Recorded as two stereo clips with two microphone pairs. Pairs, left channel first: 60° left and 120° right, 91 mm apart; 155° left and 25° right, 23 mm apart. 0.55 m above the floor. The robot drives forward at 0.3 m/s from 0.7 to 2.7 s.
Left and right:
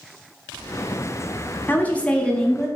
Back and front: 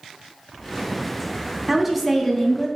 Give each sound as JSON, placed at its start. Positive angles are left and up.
{"t": 1.7, "sound": "a woman speaking", "azimuth_deg": 45, "distance_m": 0.6}